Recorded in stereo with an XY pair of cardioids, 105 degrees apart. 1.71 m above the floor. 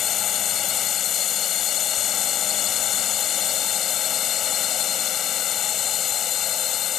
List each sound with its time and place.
0.0 s a drone: 60° left